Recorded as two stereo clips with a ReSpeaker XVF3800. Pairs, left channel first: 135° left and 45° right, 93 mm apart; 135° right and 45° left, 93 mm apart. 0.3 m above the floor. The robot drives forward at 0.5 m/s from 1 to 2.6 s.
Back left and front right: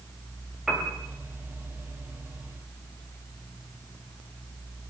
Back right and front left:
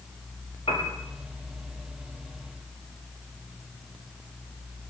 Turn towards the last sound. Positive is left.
turn(degrees=-130)